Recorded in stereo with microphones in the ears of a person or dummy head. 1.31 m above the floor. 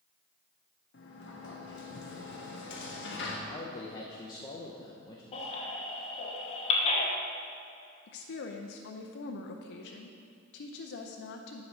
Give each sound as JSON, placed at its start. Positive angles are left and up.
{"t": 0.9, "sound": "a sliding door", "side_deg": 60, "distance_m": 1.1}
{"t": 3.5, "sound": "a man speaking", "side_deg": 25, "distance_m": 0.8}
{"t": 5.3, "sound": "a baby crying", "side_deg": 40, "distance_m": 1.5}
{"t": 8.1, "sound": "a woman speaking", "side_deg": 70, "distance_m": 0.6}